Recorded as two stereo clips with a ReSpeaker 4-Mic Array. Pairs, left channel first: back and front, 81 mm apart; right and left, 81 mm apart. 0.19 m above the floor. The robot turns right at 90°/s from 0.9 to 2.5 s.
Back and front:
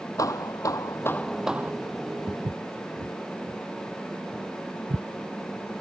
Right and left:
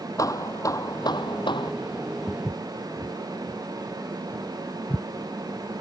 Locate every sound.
0.2 s hammering: 135° right; by 1.7 s 60° right
2.3 s footsteps: straight ahead; by 5.0 s 20° right